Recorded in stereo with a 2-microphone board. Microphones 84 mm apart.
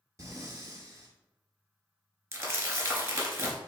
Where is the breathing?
35° right (ahead or behind), 0.6 m.